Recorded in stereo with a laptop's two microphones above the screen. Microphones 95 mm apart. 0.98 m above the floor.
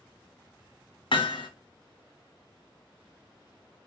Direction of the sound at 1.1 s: 70° left (ahead or behind).